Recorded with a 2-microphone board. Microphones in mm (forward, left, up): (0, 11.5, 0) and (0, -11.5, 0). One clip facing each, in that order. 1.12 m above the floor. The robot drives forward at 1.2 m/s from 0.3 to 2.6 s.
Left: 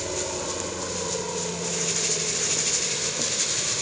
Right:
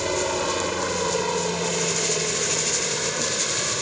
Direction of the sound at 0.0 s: 40° right (ahead or behind).